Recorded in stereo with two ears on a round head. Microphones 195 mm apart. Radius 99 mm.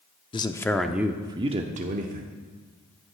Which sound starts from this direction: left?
A man speaking, at 0.3 s.